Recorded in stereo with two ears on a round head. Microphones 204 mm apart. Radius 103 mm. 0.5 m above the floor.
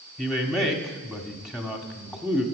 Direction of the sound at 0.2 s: Centre (ahead or behind).